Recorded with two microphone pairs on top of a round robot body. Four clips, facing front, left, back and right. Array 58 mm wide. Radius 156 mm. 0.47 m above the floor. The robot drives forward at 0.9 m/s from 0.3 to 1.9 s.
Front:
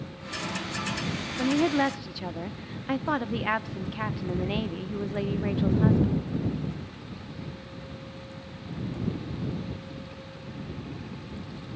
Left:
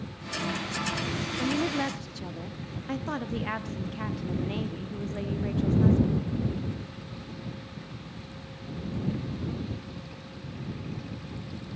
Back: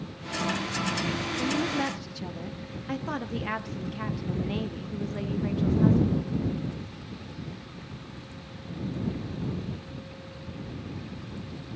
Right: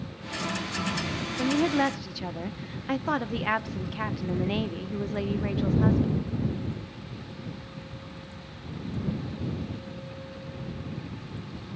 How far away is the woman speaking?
About 1.4 m.